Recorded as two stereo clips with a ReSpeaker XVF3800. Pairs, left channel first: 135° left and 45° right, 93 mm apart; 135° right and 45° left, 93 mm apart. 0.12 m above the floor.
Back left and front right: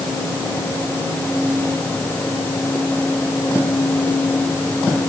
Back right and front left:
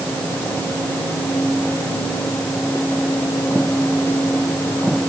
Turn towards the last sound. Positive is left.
No sound to turn to.